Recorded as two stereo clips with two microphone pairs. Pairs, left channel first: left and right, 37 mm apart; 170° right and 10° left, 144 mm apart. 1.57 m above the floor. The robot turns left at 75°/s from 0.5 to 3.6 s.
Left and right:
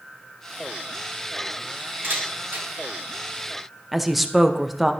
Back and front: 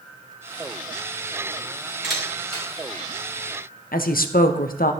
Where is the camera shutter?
70° right, 3 m; by 2.7 s 120° right, 3 m.